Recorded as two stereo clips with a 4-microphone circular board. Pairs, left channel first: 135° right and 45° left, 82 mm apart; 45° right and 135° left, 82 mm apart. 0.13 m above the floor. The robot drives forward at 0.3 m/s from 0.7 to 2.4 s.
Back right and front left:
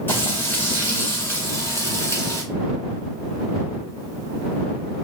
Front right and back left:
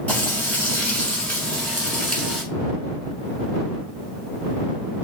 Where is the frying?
100° right, 1.8 m; by 2.4 s 130° right, 1.9 m.